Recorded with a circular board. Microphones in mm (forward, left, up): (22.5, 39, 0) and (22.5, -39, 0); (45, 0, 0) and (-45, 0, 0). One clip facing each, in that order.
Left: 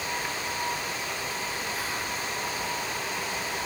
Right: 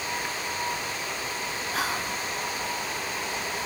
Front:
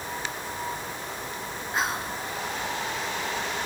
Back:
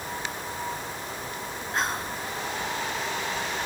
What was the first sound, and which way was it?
Whispering, 85° right.